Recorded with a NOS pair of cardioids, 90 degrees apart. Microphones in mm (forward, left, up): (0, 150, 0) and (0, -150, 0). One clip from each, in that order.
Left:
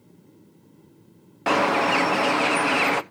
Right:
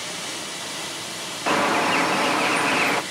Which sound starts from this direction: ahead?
A bird, at 1.5 s.